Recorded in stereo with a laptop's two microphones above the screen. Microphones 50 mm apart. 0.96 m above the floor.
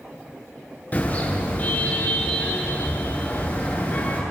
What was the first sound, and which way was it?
A car horn, 35° left (ahead or behind).